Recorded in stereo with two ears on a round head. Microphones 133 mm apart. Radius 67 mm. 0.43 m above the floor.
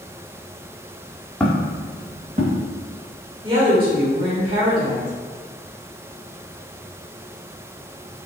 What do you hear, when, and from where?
1.4 s footsteps: 10° left (ahead or behind), 0.9 m; by 2.6 s 65° right (ahead or behind), 1.7 m
3.4 s a woman speaking: 35° right (ahead or behind), 1.1 m